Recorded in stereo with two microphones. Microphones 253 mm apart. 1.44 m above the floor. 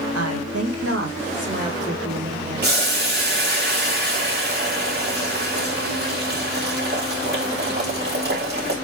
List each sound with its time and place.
0.1 s a woman speaking: 80° right, 1.8 m; by 2.7 s 30° right (ahead or behind), 4.5 m
2.6 s boiling: 40° right (ahead or behind), 2.5 m